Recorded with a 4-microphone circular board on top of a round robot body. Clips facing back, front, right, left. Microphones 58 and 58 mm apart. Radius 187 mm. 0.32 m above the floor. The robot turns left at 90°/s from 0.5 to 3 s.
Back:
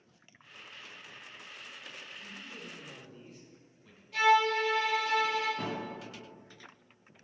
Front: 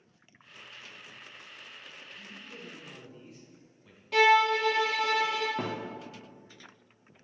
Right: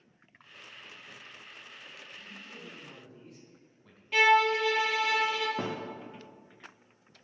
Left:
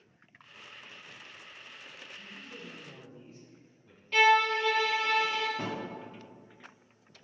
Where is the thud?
55° right, 3.5 m.